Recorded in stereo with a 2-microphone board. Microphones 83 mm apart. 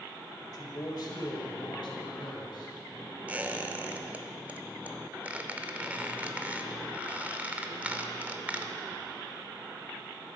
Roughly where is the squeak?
Centre.